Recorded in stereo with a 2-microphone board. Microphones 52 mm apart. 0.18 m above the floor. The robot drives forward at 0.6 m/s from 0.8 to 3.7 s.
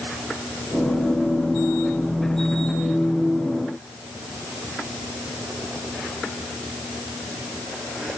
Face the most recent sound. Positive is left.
No sound to turn to.